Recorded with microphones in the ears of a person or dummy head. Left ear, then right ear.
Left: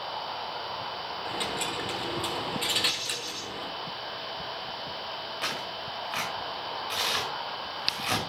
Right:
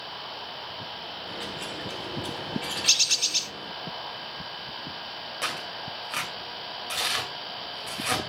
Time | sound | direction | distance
1.2 | a dropped coin | 25° left (ahead or behind) | 1.3 m
2.9 | a bird | 40° right (ahead or behind) | 0.6 m
5.4 | tearing paper | 15° right (ahead or behind) | 2.5 m